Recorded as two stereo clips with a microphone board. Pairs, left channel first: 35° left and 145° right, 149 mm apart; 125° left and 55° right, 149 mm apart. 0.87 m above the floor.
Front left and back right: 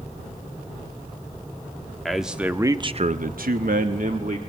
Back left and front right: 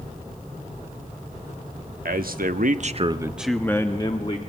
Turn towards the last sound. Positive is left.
turn(degrees=180)